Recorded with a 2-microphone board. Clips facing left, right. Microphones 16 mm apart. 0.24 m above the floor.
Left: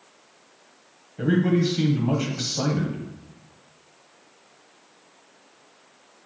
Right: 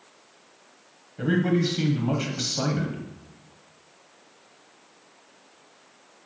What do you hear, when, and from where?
1.2 s a man speaking: 5° right (ahead or behind), 1.0 m